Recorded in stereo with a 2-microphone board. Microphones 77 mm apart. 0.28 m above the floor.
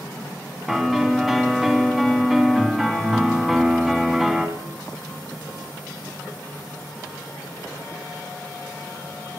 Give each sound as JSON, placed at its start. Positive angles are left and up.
{"t": 0.7, "sound": "a piano", "side_deg": 0, "distance_m": 2.5}